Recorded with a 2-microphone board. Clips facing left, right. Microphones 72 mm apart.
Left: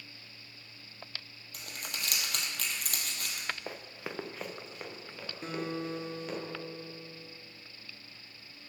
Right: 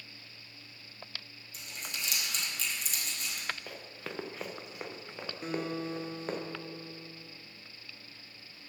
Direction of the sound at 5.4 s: 5° right (ahead or behind).